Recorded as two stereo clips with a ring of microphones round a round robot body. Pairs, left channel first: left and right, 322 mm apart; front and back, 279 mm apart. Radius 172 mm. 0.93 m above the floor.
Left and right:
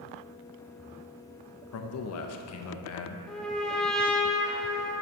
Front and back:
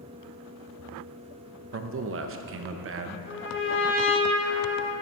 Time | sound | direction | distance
1.7 | a man speaking | 135° left | 0.5 m
3.3 | a trumpet | 5° left | 1.0 m